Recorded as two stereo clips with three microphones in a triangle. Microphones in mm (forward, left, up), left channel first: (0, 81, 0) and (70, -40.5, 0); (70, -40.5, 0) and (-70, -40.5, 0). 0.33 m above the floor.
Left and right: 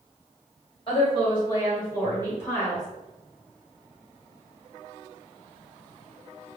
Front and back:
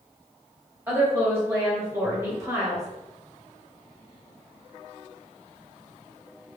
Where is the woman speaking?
120° left, 1.8 m; by 2.9 s 175° right, 1.5 m.